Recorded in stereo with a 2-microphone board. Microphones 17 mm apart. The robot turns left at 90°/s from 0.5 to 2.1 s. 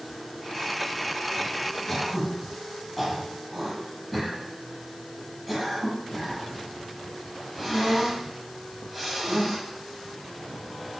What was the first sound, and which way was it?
Throat clearing, 20° left (ahead or behind).